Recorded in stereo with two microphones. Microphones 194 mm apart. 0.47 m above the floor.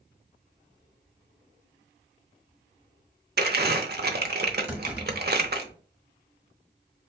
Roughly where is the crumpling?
Right.